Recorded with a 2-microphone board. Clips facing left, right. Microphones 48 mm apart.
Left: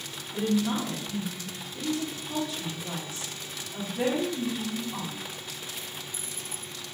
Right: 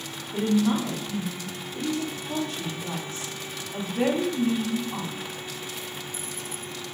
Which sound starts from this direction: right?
A woman speaking, at 0.3 s.